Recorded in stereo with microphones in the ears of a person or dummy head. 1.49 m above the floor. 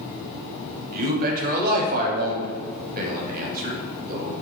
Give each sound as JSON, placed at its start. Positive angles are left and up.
{"t": 0.9, "sound": "a man speaking", "side_deg": -50, "distance_m": 0.9}